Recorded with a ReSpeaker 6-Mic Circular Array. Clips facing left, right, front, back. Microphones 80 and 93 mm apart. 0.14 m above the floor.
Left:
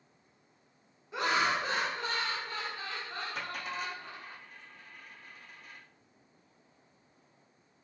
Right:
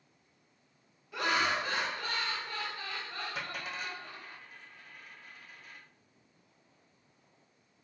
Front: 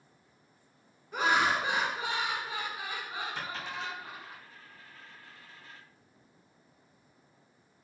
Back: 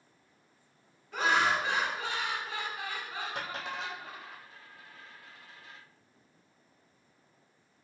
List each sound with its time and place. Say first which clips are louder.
1.1 s laughter: left 1 dB, even; 60° left, 1.4 m
3.4 s a dropped coin: left 2 dB, back 1 dB; 175° right, 1.5 m